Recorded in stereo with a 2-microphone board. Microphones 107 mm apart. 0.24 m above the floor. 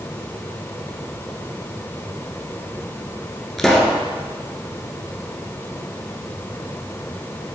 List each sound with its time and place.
3.6 s a pop: 5° left (ahead or behind), 1.8 m